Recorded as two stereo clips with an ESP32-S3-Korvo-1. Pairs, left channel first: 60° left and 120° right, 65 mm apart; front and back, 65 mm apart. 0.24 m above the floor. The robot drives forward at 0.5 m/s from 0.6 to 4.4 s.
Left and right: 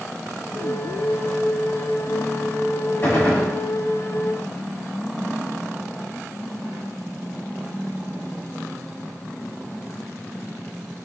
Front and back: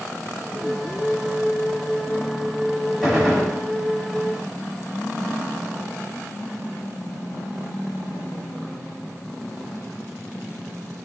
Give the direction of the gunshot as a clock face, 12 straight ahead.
9 o'clock.